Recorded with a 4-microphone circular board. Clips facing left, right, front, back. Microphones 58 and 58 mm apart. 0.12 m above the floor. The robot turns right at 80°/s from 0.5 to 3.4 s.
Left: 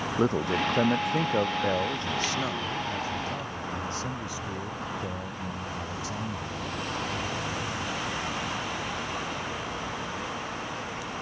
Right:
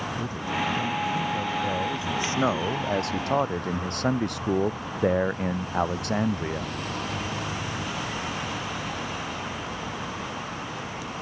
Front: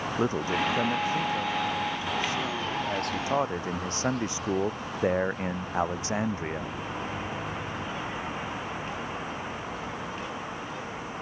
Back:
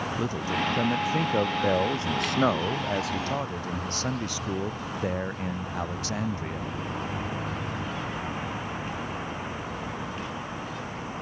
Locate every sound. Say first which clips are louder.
0.2 s a man speaking: left 6 dB, front 3 dB; 65° left; by 6.8 s 65° right